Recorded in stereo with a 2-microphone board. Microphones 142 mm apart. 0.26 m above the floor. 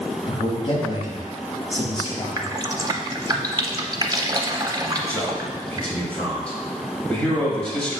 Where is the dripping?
25° right (ahead or behind), 0.6 m.